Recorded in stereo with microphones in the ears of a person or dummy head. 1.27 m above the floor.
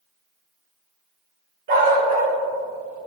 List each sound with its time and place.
1.7 s a dog barking: 45° right (ahead or behind), 2 m; by 3.1 s 55° right (ahead or behind), 1.1 m